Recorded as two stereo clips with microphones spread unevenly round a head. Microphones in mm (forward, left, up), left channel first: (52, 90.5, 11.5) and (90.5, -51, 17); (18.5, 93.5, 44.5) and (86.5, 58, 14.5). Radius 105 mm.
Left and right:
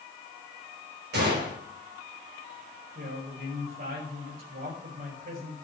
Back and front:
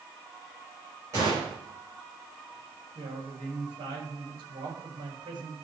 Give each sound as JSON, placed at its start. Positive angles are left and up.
{"t": 1.1, "sound": "a gunshot", "azimuth_deg": -90, "distance_m": 4.5}
{"t": 3.0, "sound": "a woman speaking", "azimuth_deg": -60, "distance_m": 5.5}